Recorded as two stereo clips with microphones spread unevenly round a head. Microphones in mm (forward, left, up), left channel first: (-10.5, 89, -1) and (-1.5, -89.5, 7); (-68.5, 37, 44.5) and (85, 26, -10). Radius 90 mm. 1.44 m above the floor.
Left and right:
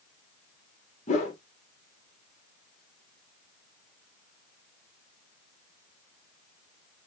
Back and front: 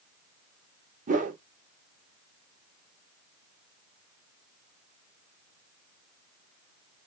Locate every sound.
1.1 s a whoosh: 40° left, 1.3 m